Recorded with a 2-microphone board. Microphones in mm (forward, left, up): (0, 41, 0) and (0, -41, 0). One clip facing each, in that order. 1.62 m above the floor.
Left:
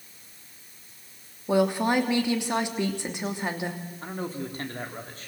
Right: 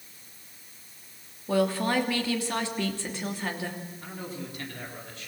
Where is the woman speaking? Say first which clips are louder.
Left 2 dB; 20° left (ahead or behind), 3 m.